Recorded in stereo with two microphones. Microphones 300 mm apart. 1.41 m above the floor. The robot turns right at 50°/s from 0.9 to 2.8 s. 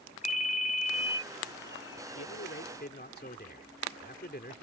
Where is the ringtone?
25° left (ahead or behind); by 1.2 s 10° left (ahead or behind).